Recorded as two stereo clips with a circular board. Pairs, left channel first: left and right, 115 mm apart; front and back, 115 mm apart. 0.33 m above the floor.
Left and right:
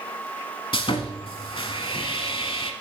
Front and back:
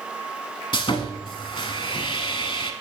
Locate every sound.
0.7 s sawing: 45° left, 0.8 m